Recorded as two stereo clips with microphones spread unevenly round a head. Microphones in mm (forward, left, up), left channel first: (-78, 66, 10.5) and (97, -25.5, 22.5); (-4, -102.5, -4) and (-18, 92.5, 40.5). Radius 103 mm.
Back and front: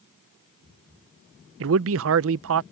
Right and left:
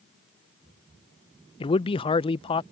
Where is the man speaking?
30° right.